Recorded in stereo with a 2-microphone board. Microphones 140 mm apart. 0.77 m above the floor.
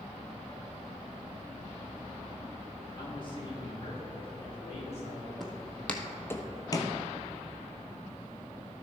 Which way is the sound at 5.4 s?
Centre (ahead or behind).